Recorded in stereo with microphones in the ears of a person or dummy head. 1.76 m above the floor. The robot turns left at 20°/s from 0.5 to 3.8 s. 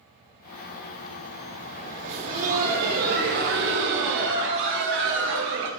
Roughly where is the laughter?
Ahead right.